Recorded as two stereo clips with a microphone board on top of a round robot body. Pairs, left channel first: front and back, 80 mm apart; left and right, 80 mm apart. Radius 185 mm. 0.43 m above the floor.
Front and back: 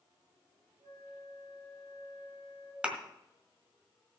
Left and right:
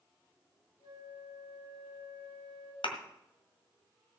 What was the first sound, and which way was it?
A flute, 130° left.